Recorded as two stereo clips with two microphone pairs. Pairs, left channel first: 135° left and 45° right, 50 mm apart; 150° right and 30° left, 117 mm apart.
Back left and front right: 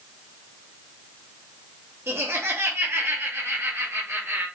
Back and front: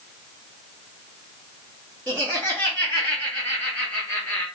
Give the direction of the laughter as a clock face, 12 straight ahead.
3 o'clock.